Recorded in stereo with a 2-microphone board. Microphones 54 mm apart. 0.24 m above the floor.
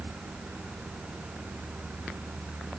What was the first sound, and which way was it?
Only background noise.